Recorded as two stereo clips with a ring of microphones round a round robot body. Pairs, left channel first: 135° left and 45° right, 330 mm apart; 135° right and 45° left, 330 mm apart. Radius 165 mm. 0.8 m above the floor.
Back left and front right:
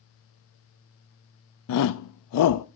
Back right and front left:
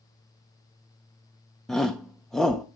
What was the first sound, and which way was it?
A shout, 135° left.